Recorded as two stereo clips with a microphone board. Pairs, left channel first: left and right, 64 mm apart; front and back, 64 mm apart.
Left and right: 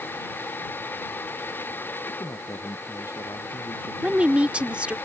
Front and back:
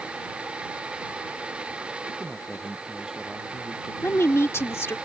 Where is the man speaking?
95° left; by 3.9 s 100° left.